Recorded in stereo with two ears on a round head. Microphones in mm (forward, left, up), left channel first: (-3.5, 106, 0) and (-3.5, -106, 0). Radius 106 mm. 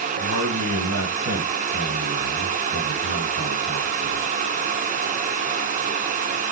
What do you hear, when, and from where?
0.2 s a man speaking: 75° right (ahead or behind), 4.5 m